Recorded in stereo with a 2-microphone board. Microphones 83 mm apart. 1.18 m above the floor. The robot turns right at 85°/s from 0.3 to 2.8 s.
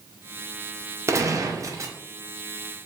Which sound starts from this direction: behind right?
A gunshot, at 1.1 s.